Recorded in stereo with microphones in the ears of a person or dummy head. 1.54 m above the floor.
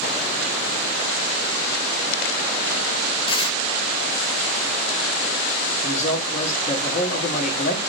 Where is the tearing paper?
25° left (ahead or behind), 0.7 m.